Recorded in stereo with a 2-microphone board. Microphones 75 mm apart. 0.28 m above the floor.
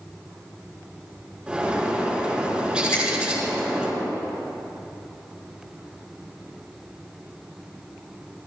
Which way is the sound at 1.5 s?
15° right (ahead or behind).